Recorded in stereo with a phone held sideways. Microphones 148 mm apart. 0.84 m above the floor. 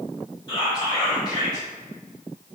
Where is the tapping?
I don't hear tapping.